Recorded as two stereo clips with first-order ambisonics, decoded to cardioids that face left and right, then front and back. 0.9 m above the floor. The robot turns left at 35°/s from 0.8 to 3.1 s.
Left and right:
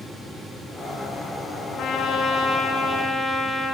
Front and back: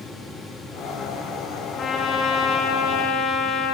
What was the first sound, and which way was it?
A trumpet, 55° left.